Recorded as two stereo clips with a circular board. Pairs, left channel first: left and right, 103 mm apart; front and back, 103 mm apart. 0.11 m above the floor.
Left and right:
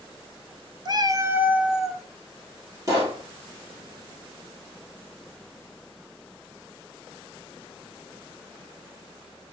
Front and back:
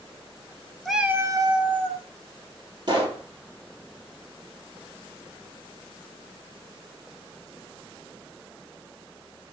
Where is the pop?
140° right, 3.5 m.